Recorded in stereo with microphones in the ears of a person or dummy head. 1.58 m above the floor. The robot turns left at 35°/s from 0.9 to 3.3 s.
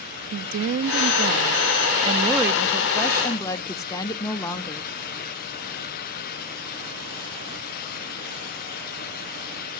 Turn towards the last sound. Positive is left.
turn(degrees=165)